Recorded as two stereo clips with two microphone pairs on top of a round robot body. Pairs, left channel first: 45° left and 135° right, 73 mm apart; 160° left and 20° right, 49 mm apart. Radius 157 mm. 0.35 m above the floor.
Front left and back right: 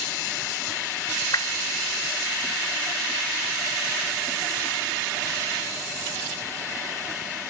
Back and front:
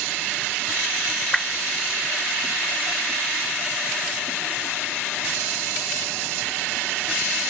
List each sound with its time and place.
1.3 s a whoosh: 75° left, 0.9 m